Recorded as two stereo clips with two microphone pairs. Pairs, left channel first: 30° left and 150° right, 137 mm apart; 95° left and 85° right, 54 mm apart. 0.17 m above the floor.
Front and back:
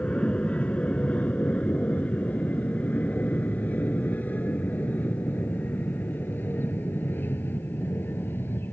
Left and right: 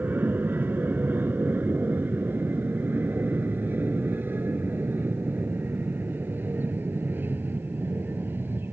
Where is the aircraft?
45° right; by 8.7 s 40° right.